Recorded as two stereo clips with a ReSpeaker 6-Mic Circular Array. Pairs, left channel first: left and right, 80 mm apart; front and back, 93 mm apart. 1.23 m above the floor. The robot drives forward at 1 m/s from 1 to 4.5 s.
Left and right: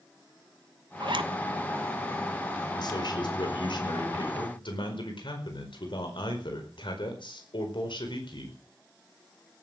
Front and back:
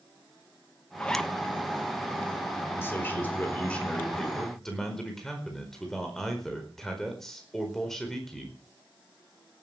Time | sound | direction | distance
1.0 | a zipper | 75° right | 1.0 m
2.8 | a man speaking | 65° left | 5 m